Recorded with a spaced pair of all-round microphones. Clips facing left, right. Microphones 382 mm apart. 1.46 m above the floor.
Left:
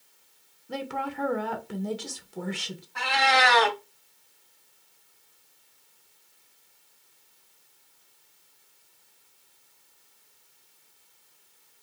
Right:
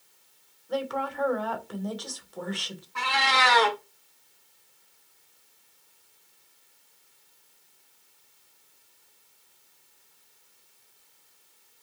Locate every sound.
0.7 s a woman speaking: 40° left (ahead or behind), 0.9 m
3.0 s a cat meowing: 15° right (ahead or behind), 1.2 m